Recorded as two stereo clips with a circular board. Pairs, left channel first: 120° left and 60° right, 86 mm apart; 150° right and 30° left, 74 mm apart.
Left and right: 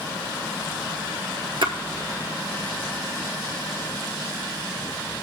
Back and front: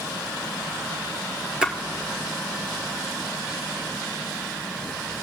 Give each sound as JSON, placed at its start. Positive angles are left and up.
{"t": 1.6, "sound": "a splash", "azimuth_deg": -45, "distance_m": 1.2}